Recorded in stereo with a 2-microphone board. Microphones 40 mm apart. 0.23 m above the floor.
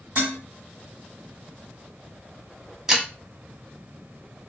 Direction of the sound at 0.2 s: 50° right (ahead or behind).